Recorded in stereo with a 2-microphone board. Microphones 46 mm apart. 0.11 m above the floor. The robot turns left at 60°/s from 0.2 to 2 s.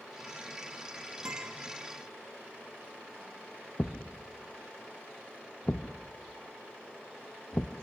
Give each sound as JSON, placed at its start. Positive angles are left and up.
{"t": 1.2, "sound": "a guitar", "side_deg": -60, "distance_m": 5.5}
{"t": 3.8, "sound": "a thud", "side_deg": 40, "distance_m": 1.6}